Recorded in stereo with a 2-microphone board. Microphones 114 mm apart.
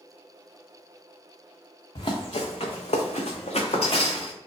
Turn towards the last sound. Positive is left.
turn(degrees=45)  # may be behind; listen again after turning